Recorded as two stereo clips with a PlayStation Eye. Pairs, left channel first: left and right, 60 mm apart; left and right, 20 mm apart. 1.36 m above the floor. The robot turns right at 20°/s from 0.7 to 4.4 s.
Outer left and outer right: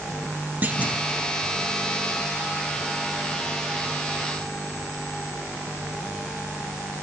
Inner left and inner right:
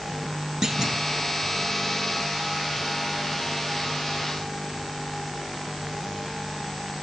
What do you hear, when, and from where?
0.6 s a clunk: 30° right (ahead or behind), 0.9 m; by 1.0 s 20° right (ahead or behind), 0.9 m